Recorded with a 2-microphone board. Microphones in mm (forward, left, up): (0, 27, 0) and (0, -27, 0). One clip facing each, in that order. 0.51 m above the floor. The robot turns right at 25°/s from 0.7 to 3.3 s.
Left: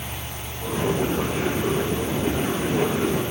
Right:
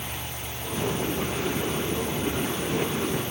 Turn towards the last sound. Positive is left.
No sound to turn to.